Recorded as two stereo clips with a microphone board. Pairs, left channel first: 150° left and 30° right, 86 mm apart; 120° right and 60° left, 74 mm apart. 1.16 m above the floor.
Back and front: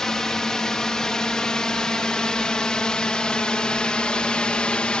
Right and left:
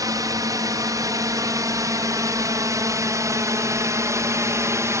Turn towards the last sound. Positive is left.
turn(degrees=75)